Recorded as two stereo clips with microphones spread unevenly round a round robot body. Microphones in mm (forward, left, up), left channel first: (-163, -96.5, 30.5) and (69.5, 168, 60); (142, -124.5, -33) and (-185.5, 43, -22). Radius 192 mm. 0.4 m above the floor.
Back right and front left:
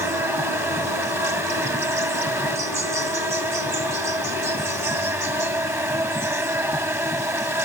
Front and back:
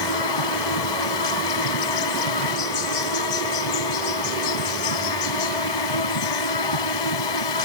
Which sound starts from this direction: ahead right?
An insect, at 0.0 s.